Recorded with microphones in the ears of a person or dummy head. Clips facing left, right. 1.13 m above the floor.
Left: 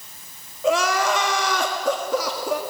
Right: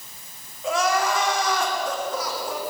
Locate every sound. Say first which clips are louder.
0.6 s crying: left 2 dB; 65° left (ahead or behind), 2 m